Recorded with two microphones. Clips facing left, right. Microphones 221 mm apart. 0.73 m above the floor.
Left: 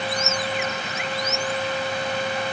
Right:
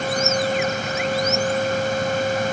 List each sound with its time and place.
Only background noise.